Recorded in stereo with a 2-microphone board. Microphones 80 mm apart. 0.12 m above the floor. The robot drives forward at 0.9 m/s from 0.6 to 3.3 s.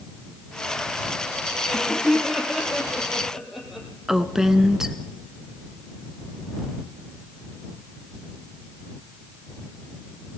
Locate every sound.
1.6 s laughter: 5° right (ahead or behind), 3.5 m; by 3.9 s centre (ahead or behind), 5 m
4.1 s a woman speaking: 5° right (ahead or behind), 1.2 m